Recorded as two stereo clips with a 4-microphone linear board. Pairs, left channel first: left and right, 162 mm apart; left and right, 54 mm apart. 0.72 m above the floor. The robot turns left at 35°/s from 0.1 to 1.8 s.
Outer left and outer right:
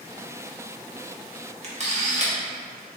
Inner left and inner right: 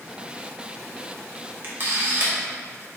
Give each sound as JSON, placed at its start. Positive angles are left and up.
{"t": 1.6, "sound": "a camera shutter", "side_deg": -45, "distance_m": 0.8}